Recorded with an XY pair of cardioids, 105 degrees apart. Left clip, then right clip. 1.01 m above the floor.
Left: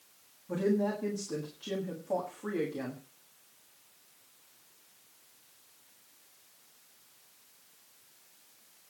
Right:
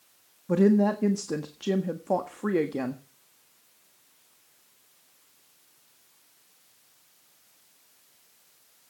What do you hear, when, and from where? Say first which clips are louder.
0.5 s a woman speaking: right 8 dB; 65° right, 1.5 m